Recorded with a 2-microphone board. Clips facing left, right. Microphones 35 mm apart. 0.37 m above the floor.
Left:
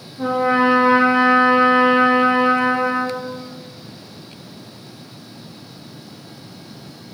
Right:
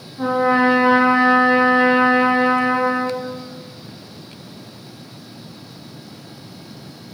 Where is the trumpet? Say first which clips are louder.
Right 1 dB; 55° right (ahead or behind), 1.7 m.